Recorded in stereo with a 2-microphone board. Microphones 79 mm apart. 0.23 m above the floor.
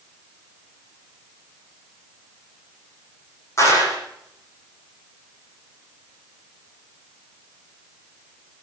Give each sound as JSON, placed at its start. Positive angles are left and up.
{"t": 3.6, "sound": "a clap", "side_deg": 35, "distance_m": 8.0}